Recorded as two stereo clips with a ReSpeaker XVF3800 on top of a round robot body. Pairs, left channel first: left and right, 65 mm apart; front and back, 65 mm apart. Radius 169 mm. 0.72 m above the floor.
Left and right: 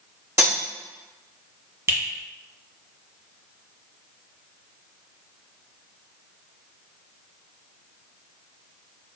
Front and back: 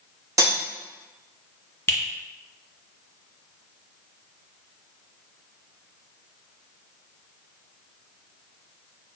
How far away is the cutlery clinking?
About 0.8 m.